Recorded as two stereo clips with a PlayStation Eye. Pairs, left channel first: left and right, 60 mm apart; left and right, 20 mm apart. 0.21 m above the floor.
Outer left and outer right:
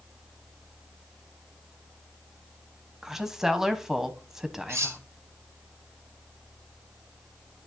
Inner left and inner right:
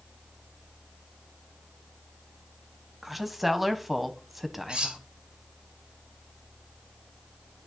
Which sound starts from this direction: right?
Cutlery clinking, at 4.7 s.